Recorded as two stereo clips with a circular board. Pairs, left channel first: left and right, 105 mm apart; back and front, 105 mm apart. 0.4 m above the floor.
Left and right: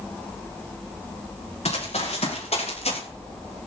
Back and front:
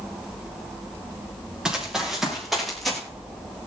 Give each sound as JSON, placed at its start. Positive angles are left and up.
{"t": 1.6, "sound": "running footsteps", "azimuth_deg": 80, "distance_m": 6.0}